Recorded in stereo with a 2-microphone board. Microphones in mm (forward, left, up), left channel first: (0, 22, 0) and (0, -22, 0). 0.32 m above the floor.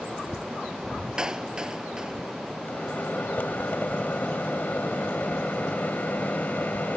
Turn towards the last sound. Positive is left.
turn(degrees=45)  # may be behind; listen again after turning